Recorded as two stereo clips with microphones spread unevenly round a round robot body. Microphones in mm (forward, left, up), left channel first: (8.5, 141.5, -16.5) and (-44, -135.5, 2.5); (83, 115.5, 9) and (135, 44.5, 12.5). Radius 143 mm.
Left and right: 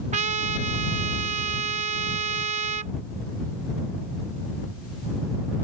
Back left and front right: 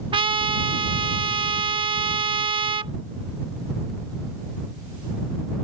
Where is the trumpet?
30° right.